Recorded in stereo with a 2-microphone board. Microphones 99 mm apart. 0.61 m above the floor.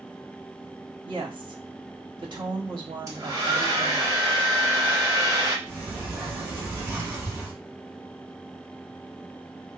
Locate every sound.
1.1 s a woman speaking: 50° right (ahead or behind), 1.2 m
3.1 s a hair dryer: 35° right (ahead or behind), 1.4 m
5.7 s a sliding door: 20° right (ahead or behind), 2.5 m